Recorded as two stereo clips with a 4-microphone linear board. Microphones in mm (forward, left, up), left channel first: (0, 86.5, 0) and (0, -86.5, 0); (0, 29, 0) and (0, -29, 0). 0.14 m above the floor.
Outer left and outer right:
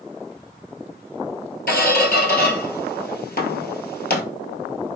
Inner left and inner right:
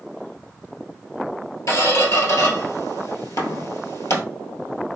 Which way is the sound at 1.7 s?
65° left (ahead or behind).